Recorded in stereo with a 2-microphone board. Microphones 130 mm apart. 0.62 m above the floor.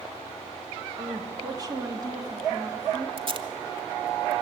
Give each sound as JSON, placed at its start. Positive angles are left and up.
{"t": 1.0, "sound": "a woman speaking", "side_deg": -30, "distance_m": 1.2}
{"t": 3.2, "sound": "tape being pulled", "side_deg": -45, "distance_m": 1.0}